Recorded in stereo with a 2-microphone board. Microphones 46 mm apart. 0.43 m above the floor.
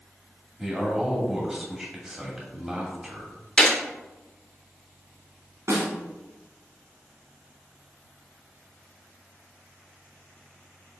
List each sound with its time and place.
0.6 s a man speaking: 5° right (ahead or behind), 2.5 m
3.6 s a gunshot: 20° left (ahead or behind), 1.0 m
5.7 s a snare drum: 80° right, 2.0 m